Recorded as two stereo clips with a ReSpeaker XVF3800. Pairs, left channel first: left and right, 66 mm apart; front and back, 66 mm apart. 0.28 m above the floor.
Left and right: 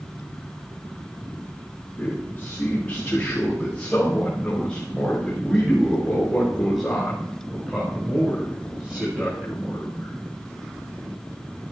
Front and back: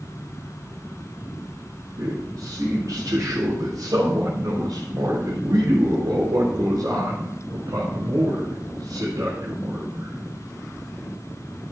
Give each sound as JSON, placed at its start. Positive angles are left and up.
{"t": 2.0, "sound": "a man speaking", "azimuth_deg": 150, "distance_m": 7.5}